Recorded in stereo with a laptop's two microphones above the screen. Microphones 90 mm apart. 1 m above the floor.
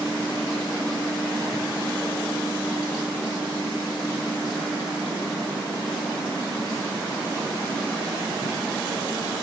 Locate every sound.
Only background noise.